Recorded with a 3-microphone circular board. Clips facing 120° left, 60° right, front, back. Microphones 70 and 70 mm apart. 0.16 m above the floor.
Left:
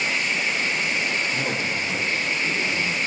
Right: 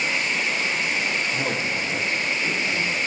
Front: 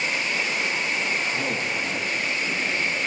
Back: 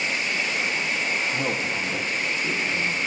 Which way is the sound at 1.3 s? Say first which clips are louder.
Even, even; 155° right.